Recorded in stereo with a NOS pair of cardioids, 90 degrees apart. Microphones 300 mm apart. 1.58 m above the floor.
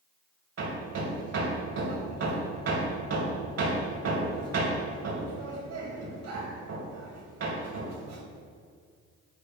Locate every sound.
0.6 s hammering: 55° right, 1.9 m